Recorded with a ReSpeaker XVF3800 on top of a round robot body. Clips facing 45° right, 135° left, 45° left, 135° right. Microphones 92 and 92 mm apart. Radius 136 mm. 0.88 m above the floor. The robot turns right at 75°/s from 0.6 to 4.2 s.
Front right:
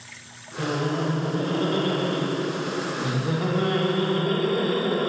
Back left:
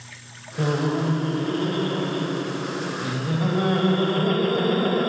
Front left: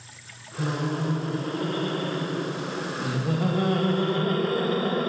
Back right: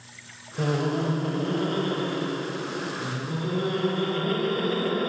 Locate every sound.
0.6 s laughter: 170° right, 1.1 m; by 5.1 s 100° left, 1.1 m